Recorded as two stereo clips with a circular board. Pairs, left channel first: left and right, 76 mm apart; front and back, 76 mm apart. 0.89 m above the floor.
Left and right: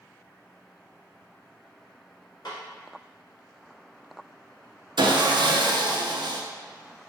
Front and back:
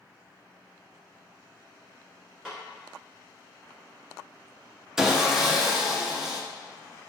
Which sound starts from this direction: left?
A snare drum, at 2.5 s.